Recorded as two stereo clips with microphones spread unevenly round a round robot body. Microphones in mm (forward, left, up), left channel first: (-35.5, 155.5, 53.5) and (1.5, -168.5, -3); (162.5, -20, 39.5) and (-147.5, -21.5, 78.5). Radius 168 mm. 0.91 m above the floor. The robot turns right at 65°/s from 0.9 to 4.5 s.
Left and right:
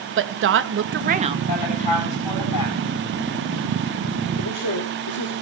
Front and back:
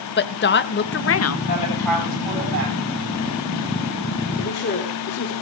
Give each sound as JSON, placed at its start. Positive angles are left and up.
{"t": 0.2, "sound": "a woman speaking", "azimuth_deg": -45, "distance_m": 1.1}
{"t": 1.5, "sound": "a woman speaking", "azimuth_deg": 55, "distance_m": 9.5}
{"t": 4.4, "sound": "a man speaking", "azimuth_deg": 50, "distance_m": 2.5}